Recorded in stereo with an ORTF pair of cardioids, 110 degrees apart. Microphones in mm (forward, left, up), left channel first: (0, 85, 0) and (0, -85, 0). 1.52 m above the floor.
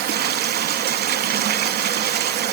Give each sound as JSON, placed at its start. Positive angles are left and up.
{"t": 0.0, "sound": "running water", "azimuth_deg": -65, "distance_m": 1.9}